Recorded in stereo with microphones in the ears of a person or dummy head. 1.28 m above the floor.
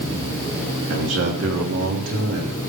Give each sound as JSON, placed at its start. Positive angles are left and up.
{"t": 0.9, "sound": "a man speaking", "side_deg": -70, "distance_m": 3.0}